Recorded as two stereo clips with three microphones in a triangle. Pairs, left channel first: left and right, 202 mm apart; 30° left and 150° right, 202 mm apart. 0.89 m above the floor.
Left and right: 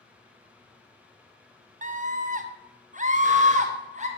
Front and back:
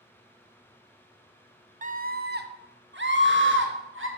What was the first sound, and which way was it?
A scream, 120° right.